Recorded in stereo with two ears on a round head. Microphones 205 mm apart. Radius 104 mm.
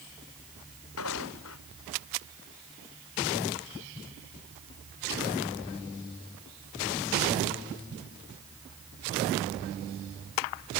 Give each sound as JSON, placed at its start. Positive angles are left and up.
{"t": 1.0, "sound": "footsteps", "side_deg": 65}